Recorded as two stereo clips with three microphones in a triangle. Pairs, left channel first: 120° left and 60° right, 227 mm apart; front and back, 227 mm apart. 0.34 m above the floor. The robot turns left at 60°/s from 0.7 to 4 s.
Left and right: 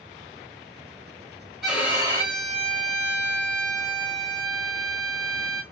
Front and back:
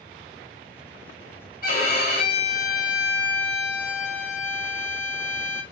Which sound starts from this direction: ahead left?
A violin, at 1.6 s.